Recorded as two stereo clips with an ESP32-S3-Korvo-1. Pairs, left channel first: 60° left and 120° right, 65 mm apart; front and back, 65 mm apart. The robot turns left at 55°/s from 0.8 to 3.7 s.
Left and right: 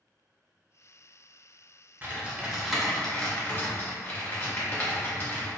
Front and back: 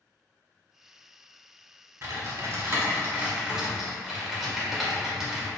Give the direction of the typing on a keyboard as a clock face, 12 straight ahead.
6 o'clock.